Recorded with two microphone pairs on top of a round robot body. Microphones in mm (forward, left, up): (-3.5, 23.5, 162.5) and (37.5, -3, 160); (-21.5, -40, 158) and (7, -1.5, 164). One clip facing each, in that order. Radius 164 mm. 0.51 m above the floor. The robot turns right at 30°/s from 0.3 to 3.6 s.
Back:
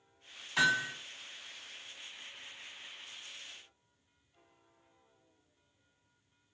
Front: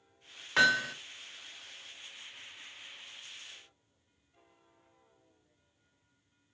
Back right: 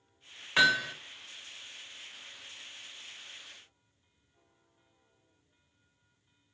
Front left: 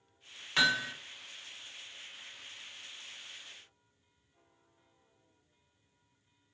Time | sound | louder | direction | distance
0.6 | hammering | front 3 dB, back right 4 dB | 50° right | 1.6 m